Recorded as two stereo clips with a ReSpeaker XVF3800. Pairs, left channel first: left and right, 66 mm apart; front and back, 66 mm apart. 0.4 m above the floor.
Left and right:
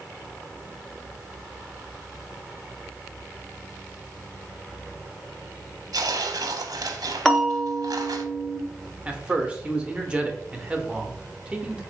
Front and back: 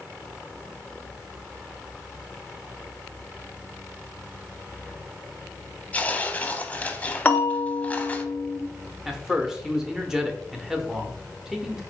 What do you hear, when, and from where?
5.9 s tearing paper: 70° right, 0.6 m
7.2 s a bell: 5° left, 1.0 m
9.1 s a man speaking: 115° right, 0.7 m